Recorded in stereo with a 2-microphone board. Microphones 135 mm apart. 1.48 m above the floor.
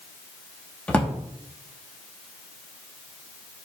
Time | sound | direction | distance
0.9 | a drawer | 10° left (ahead or behind) | 1.1 m